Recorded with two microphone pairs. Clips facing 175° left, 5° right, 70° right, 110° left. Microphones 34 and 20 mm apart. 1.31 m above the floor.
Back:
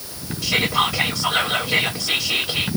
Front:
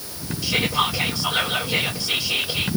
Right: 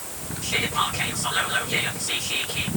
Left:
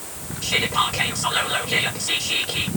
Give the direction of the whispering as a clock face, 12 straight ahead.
7 o'clock.